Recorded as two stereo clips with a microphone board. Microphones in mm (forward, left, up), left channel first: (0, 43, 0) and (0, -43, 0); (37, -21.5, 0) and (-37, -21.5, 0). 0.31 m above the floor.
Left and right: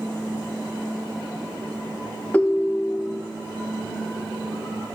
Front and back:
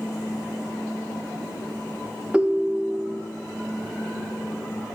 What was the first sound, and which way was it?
A ringtone, 135° left.